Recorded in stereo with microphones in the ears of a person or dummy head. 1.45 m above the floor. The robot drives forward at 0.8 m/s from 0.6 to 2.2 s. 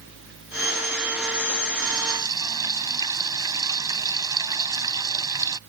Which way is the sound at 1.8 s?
20° right (ahead or behind).